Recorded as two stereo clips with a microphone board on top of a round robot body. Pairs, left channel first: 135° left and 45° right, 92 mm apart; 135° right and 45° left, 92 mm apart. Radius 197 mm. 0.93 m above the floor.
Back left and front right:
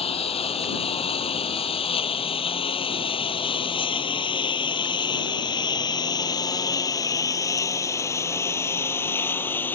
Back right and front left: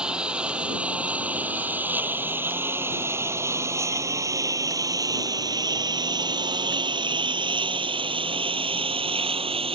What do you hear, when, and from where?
0.0 s a lawn mower: 125° left; by 9.8 s 65° left